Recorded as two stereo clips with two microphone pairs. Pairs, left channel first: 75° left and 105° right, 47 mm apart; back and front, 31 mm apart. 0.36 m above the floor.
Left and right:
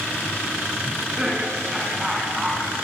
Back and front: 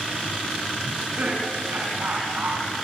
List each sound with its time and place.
0.8 s laughter: 25° right, 4.5 m; by 2.6 s 20° right, 3.5 m